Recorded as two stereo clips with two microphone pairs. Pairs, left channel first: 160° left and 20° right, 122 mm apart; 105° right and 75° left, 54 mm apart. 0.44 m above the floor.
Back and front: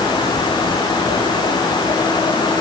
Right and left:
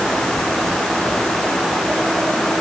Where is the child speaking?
No child speaking in this recording.